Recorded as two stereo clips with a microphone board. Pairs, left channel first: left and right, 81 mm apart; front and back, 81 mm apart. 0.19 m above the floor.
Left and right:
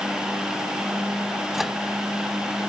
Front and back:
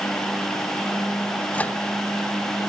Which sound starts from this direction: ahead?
A microwave, at 1.5 s.